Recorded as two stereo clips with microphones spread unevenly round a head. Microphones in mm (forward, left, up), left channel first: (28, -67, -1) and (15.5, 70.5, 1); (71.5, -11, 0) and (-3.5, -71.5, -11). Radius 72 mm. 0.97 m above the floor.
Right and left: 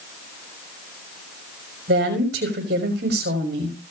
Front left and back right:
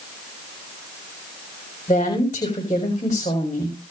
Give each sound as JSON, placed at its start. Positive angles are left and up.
{"t": 1.9, "sound": "a woman speaking", "azimuth_deg": 90, "distance_m": 6.0}